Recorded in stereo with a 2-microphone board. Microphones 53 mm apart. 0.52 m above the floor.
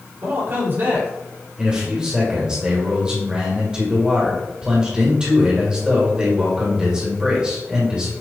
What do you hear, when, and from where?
0.2 s a man speaking: 45° right (ahead or behind), 1.8 m
1.6 s a man speaking: 20° right (ahead or behind), 1.3 m